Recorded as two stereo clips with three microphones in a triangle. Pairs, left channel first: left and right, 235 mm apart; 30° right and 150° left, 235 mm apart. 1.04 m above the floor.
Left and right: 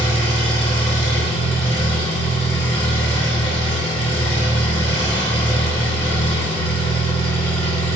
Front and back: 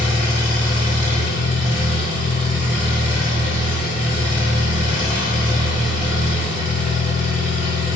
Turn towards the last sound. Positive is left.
turn(degrees=155)